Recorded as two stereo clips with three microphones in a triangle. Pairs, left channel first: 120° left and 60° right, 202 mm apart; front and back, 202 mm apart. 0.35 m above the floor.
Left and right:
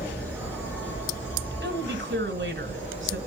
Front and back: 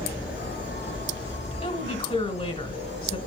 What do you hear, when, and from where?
0.0 s an insect: 20° left, 5 m
1.6 s a woman speaking: 50° right, 2 m